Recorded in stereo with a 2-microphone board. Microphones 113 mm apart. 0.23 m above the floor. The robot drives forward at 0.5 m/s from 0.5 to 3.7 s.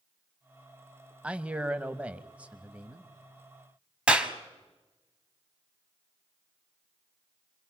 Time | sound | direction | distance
1.2 | a man speaking | 10° right (ahead or behind) | 1.1 m
4.1 | a clap | 10° right (ahead or behind) | 1.6 m